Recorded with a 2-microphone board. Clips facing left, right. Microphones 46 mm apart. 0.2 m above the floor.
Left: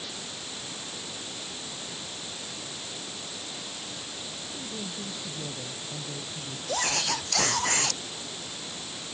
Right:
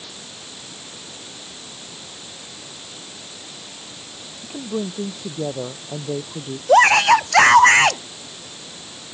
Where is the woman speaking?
60° right (ahead or behind).